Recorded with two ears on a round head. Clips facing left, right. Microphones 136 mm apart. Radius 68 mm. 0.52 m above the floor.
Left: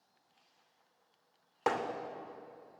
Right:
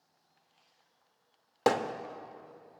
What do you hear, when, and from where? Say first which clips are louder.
1.7 s hammering: right 5 dB; 35° right (ahead or behind), 0.6 m